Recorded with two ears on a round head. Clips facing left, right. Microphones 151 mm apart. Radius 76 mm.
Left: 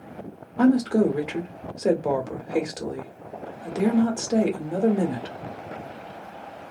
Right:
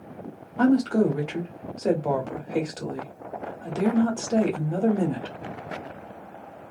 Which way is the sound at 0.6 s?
10° left (ahead or behind).